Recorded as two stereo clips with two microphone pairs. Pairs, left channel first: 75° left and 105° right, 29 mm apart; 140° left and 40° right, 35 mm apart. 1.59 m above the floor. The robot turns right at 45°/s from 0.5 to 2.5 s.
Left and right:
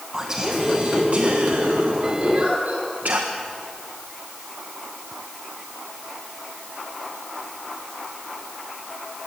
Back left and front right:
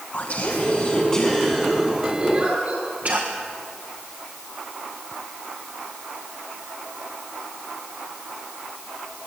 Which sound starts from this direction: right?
A giggle, at 2.2 s.